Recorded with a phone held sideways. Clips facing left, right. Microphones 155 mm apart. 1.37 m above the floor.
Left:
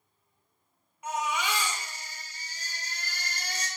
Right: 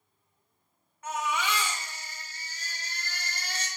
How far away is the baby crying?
About 2.5 m.